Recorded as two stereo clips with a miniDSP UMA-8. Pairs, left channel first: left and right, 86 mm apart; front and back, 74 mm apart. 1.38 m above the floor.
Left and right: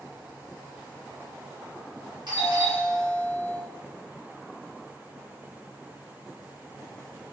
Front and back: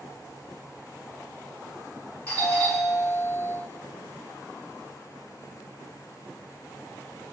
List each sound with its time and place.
2.3 s a doorbell: 55° right, 3 m